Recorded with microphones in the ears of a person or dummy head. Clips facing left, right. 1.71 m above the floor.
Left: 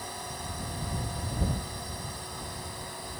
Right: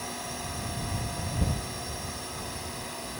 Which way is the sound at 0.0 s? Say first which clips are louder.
Right 2 dB; 45° right (ahead or behind).